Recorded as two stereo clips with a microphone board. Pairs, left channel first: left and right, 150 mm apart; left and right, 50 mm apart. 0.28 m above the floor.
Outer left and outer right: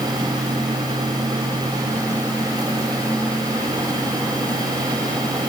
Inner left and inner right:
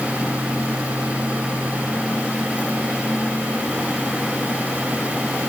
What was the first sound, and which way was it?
Only background noise.